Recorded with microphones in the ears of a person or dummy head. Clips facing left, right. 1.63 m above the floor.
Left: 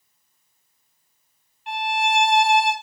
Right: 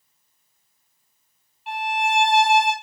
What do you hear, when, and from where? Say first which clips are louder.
1.7 s a violin: left 1 dB; 10° right (ahead or behind), 3.5 m